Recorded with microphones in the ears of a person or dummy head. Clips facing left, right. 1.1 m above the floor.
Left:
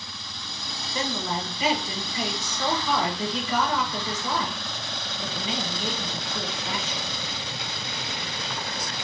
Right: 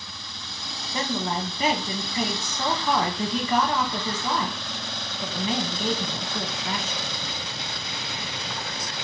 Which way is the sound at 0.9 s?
45° right (ahead or behind).